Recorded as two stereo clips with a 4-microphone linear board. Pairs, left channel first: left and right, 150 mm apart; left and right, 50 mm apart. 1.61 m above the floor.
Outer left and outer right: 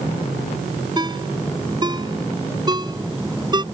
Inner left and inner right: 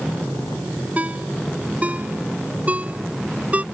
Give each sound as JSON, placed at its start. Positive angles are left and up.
{"t": 1.0, "sound": "a ringtone", "side_deg": -30}